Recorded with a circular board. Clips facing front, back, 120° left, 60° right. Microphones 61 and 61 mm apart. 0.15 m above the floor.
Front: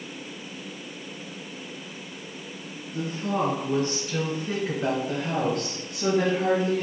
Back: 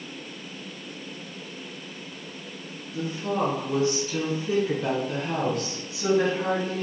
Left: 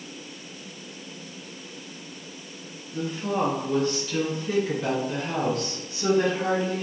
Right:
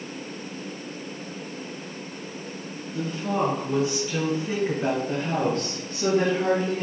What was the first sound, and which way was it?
A woman speaking, 45° left.